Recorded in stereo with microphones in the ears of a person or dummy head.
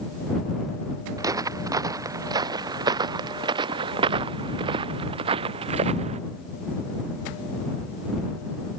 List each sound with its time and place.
1.2 s footsteps: 20° right (ahead or behind); by 6.2 s 35° right (ahead or behind)